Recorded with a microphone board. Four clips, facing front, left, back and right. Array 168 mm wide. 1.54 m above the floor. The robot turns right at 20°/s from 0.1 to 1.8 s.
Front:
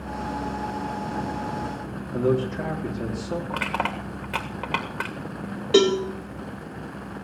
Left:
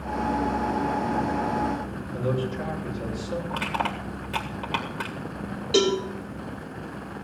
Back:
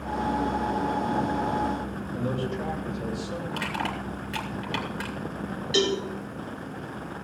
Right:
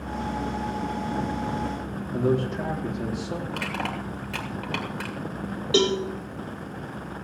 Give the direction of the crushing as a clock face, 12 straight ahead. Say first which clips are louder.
Left 2 dB, front 3 dB; 12 o'clock.